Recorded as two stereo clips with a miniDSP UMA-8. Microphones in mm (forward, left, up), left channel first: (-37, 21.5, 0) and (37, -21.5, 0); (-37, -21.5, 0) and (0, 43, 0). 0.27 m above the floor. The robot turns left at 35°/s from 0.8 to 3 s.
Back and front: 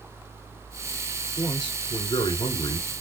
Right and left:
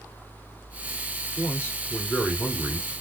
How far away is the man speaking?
About 2.5 m.